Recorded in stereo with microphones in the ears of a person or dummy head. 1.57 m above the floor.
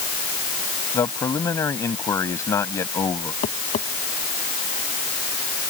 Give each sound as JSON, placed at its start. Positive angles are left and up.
{"t": 0.9, "sound": "a man speaking", "side_deg": 15}
{"t": 3.4, "sound": "tapping", "side_deg": 35}